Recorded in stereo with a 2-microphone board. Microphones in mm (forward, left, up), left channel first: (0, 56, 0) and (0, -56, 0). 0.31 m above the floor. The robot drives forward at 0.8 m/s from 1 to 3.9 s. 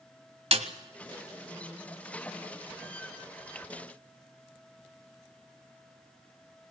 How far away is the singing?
No singing in this recording.